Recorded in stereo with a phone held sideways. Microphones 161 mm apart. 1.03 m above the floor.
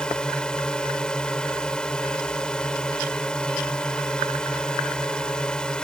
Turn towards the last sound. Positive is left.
turn(degrees=5)  # may be behind; listen again after turning